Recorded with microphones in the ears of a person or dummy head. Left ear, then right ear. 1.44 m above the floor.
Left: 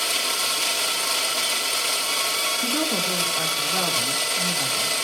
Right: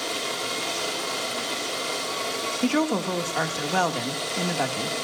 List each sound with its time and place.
0.0 s a machine running: 55° left (ahead or behind), 2.5 m
2.6 s a woman speaking: 70° right (ahead or behind), 2.5 m